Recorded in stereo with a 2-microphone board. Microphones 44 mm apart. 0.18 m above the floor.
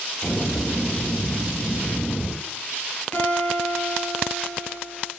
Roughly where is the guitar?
Left.